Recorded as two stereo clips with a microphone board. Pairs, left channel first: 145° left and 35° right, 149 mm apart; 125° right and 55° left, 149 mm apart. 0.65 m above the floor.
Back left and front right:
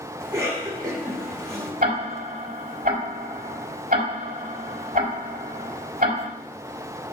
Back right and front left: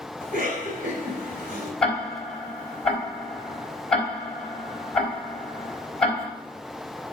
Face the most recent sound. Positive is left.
turn(degrees=-40)